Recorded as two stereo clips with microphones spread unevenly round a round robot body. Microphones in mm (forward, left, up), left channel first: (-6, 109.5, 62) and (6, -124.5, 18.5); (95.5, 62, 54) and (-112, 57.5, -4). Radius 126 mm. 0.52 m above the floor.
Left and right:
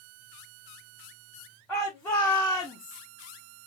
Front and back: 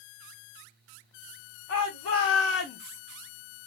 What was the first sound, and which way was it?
A shout, straight ahead.